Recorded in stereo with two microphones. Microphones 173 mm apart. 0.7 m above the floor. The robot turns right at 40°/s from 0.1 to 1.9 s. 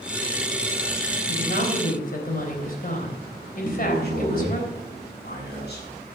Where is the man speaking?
60° left (ahead or behind), 6 m.